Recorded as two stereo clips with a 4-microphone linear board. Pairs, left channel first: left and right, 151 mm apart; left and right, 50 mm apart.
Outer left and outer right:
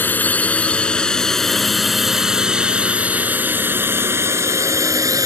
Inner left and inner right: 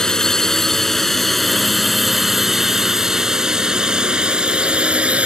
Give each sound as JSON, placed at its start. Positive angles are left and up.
{"t": 0.0, "sound": "a drone", "side_deg": 10}